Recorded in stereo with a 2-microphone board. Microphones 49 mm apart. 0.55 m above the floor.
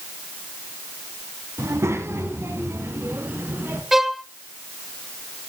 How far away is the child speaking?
About 3 m.